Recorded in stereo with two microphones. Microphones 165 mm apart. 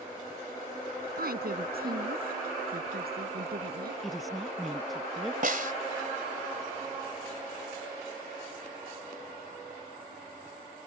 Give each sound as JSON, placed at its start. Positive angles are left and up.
{"t": 1.2, "sound": "a woman speaking", "side_deg": -80}
{"t": 4.0, "sound": "a woman speaking", "side_deg": 0}
{"t": 5.4, "sound": "a snare drum", "side_deg": -65}